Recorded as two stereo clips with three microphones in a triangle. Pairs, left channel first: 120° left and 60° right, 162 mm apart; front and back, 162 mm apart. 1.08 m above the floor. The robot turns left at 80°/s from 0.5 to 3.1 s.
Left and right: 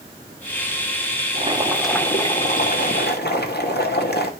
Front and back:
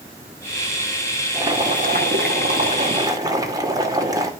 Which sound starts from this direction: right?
Boiling, at 1.3 s.